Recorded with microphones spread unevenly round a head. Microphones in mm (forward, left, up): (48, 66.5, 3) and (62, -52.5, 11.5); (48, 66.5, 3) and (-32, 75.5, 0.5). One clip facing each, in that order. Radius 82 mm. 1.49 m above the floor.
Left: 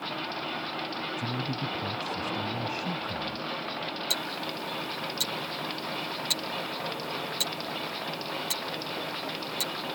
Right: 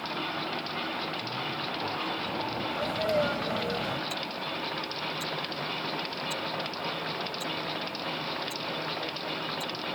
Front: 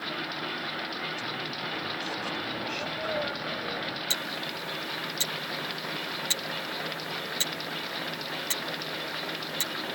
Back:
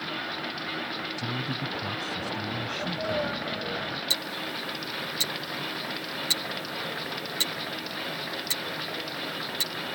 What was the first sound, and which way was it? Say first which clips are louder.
A man speaking: left 2 dB, back 3 dB; 125° left.